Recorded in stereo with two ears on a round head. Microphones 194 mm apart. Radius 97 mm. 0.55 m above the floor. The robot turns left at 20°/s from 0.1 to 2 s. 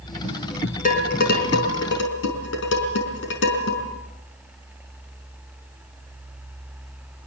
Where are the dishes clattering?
40° left (ahead or behind), 5 m; by 3.8 s 65° left (ahead or behind), 5 m.